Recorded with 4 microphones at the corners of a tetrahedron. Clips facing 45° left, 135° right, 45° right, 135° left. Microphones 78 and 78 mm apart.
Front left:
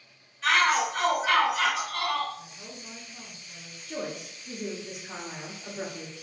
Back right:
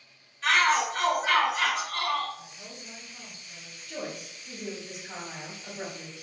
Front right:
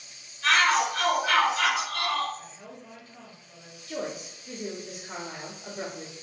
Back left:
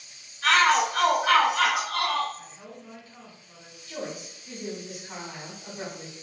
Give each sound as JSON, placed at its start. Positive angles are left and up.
{"t": 0.4, "sound": "a shout", "azimuth_deg": 135, "distance_m": 1.0}
{"t": 2.4, "sound": "a woman speaking", "azimuth_deg": 70, "distance_m": 1.8}
{"t": 3.9, "sound": "a woman speaking", "azimuth_deg": 15, "distance_m": 1.0}